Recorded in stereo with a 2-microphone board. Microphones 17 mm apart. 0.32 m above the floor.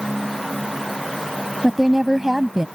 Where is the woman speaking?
20° right (ahead or behind); by 2.7 s 35° right (ahead or behind).